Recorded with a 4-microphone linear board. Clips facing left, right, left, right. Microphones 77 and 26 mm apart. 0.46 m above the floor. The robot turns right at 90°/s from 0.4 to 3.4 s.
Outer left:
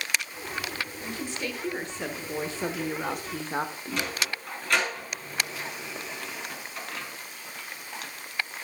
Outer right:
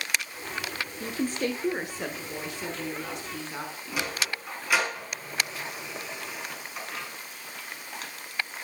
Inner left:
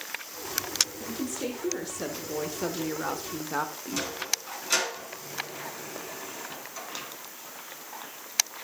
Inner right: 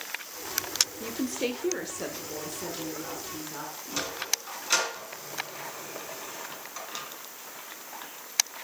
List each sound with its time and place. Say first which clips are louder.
1.0 s a woman speaking: outer right 9 dB, inner right 2 dB; 95° right, 1.0 m; by 4.0 s 125° left, 1.0 m
3.9 s a sliding door: outer right 1 dB, inner right 1 dB; 10° right (ahead or behind), 3.5 m